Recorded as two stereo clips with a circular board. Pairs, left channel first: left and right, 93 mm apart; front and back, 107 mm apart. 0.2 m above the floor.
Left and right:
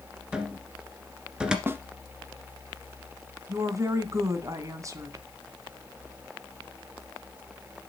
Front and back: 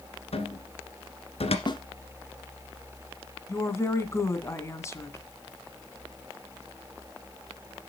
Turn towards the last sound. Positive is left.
turn(degrees=-55)